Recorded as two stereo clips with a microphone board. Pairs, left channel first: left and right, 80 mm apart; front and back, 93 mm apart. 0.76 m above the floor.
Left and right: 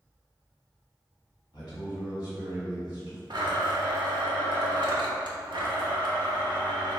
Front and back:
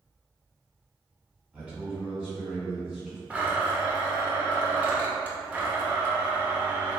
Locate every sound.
1.5 s a man speaking: 100° left, 1.5 m
3.3 s a blender: 105° right, 0.5 m